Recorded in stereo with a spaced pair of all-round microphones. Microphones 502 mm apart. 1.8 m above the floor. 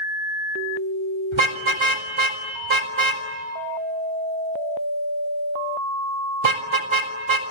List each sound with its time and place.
1.3 s a car horn: 65° right (ahead or behind), 3 m